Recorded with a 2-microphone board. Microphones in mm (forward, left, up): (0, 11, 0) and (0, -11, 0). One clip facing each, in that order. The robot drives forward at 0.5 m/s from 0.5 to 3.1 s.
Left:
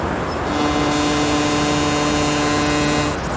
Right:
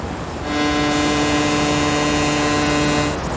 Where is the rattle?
No rattle in this recording.